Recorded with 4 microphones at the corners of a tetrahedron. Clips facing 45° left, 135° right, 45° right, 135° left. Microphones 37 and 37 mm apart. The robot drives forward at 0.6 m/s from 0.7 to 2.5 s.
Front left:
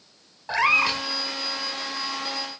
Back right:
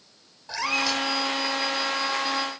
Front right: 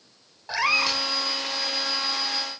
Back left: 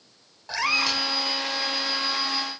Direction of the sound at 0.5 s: 35° left.